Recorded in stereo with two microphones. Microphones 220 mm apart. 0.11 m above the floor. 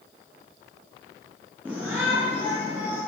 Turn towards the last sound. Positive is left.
turn(degrees=-10)  # may be behind; listen again after turning